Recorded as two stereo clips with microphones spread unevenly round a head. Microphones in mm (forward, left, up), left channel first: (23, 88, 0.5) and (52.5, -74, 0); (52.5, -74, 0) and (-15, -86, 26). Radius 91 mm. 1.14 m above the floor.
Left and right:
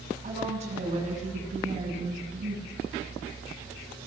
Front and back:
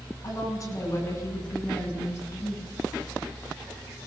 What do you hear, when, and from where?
0.2 s a woman speaking: 30° right, 8.5 m; by 2.6 s 35° right, 7.5 m